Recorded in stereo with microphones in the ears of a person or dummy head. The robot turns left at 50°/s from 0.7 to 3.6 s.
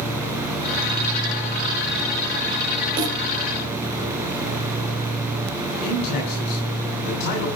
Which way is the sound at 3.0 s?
25° right (ahead or behind).